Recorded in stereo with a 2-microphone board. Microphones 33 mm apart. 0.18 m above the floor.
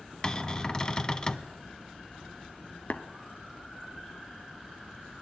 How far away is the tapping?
About 0.6 m.